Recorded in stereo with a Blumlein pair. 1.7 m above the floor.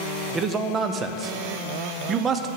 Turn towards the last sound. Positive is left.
turn(degrees=-25)